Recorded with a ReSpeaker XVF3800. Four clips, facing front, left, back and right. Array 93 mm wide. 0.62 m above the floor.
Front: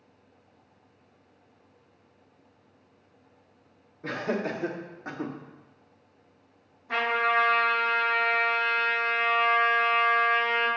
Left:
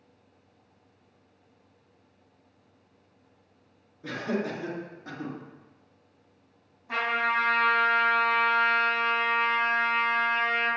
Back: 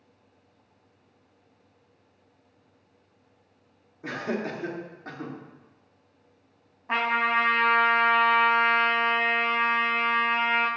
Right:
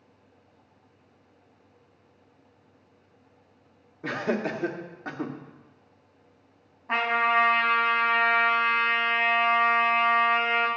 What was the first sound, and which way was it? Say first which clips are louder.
Laughter: right 3 dB, front 1 dB; 100° right.